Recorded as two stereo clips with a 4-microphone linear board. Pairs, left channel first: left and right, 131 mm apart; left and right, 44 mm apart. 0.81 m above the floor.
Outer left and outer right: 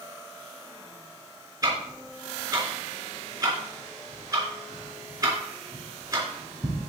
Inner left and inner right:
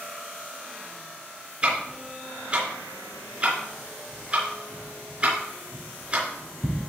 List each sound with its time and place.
1.6 s ticking: 30° right (ahead or behind), 4 m